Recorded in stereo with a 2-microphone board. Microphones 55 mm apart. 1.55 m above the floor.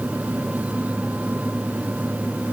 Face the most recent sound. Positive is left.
No sound to turn to.